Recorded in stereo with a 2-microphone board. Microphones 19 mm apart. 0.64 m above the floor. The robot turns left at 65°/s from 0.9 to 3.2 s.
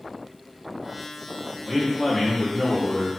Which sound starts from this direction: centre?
A man speaking, at 1.6 s.